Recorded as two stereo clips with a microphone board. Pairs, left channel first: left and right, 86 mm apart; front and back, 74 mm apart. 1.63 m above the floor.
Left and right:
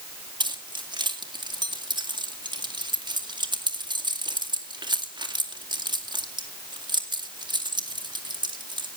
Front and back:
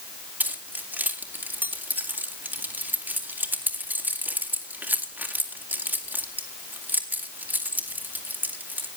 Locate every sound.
0.4 s keys jangling: 115° right, 2.5 m